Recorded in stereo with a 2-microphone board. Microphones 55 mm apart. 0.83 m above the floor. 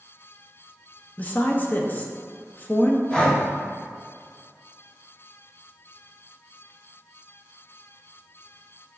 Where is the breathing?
15° left (ahead or behind), 1.0 m.